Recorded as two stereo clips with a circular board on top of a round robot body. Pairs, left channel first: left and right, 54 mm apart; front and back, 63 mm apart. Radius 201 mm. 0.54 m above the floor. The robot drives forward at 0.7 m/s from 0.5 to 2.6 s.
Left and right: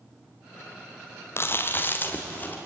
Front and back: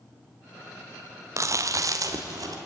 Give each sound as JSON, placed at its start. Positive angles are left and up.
{"t": 1.4, "sound": "chewing", "azimuth_deg": 140, "distance_m": 1.7}